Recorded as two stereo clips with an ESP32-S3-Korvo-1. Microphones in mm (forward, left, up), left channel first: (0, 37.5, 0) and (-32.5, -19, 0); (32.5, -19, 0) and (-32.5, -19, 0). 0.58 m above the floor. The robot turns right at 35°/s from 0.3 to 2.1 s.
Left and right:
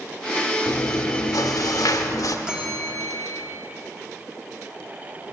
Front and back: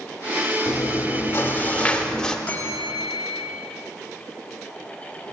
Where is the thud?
I don't hear a thud.